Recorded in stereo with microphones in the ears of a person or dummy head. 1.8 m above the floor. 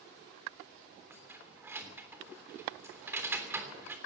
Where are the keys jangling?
15° right (ahead or behind), 3 m.